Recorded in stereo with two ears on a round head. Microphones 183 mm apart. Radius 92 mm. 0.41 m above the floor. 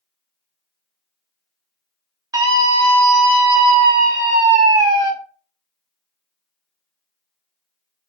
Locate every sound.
2.3 s a scream: 20° right (ahead or behind), 1.6 m